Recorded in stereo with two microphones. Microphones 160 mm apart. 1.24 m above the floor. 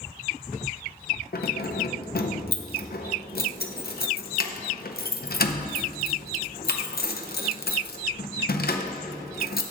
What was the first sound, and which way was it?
Keys jangling, 75° left (ahead or behind).